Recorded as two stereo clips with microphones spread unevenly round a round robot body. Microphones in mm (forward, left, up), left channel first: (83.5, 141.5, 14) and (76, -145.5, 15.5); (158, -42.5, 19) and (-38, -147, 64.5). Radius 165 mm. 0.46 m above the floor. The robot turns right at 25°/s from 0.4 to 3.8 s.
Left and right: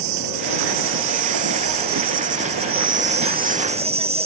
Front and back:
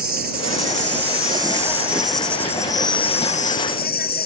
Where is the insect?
105° right; by 4.3 s 20° right.